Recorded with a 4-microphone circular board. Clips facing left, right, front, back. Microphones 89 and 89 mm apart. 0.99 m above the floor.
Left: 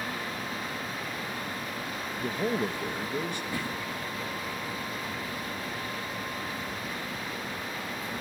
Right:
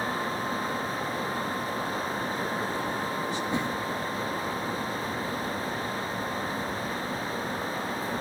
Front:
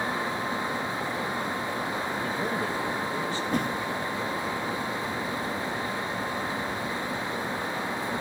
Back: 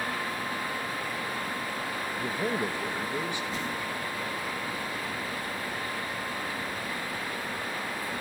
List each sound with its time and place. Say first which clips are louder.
2.2 s a man speaking: left 1 dB, back 2 dB; 105° left, 1.2 m
3.5 s a whoosh: right 5 dB, front 6 dB; 25° right, 1.4 m